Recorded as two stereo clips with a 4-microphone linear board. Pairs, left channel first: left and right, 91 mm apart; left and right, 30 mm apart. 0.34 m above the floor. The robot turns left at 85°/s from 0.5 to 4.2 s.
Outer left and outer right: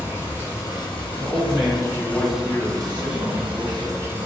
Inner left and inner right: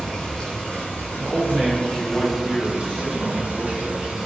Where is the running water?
150° left, 1.2 m; by 4.2 s 160° right, 1.2 m.